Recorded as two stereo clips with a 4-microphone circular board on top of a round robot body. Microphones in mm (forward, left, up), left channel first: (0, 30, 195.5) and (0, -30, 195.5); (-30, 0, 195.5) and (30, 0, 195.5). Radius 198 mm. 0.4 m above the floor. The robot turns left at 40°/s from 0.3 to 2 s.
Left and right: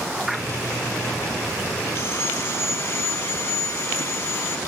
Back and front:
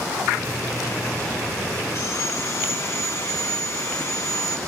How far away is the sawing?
About 2.5 m.